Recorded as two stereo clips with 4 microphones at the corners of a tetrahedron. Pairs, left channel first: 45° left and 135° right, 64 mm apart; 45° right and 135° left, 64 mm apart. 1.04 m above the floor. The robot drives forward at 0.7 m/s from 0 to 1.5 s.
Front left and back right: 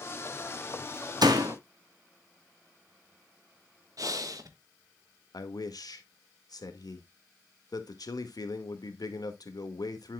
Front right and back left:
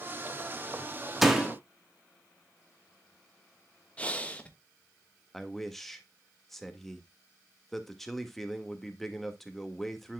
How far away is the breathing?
About 1.3 m.